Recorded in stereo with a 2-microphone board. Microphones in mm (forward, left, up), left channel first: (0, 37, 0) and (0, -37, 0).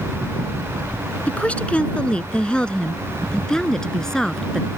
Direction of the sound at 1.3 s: 15° left (ahead or behind).